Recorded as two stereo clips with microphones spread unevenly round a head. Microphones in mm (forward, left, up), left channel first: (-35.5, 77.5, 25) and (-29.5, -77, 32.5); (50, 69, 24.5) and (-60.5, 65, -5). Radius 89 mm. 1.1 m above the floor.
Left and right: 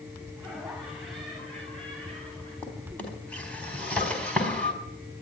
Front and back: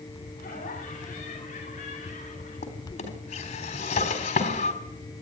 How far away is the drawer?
About 4 m.